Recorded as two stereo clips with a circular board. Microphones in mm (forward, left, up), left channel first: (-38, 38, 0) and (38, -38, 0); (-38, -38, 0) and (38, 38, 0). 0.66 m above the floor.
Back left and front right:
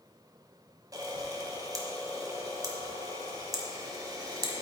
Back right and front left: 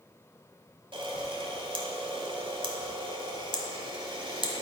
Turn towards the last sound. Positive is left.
turn(degrees=10)